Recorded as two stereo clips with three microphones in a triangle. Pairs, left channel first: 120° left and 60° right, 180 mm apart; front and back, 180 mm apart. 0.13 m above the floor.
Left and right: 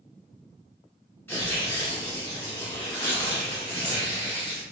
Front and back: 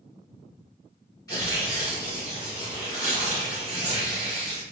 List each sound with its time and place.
1.3 s tearing paper: 50° left, 1.8 m